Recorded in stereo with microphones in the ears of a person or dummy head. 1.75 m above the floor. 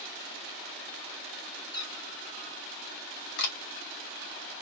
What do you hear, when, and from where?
1.7 s a cat meowing: 25° left (ahead or behind), 2 m
3.4 s a camera shutter: 55° left (ahead or behind), 1.8 m